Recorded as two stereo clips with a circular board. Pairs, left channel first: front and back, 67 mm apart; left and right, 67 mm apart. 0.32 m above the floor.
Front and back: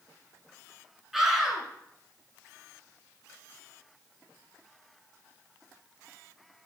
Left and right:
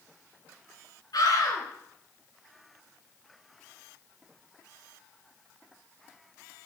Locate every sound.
1.1 s a scream: 95° left, 3.5 m